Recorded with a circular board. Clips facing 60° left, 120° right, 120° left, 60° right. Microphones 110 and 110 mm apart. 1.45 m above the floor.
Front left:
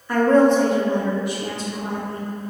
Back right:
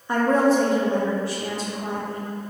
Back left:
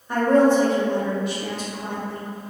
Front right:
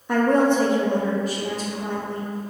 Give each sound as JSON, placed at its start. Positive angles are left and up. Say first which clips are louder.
{"t": 0.1, "sound": "a woman speaking", "louder": "front left 4 dB, back left 1 dB", "azimuth_deg": -50, "distance_m": 0.6}